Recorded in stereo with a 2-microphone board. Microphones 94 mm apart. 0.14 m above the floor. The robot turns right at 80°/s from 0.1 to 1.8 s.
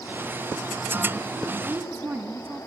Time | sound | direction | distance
1.6 | a woman speaking | 15° right (ahead or behind) | 1.1 m